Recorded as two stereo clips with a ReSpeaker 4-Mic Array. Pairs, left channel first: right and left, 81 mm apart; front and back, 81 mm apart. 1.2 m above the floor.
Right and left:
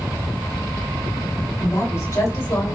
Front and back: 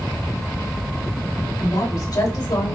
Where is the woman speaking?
40° right, 4.5 m; by 2.8 s 30° right, 4 m.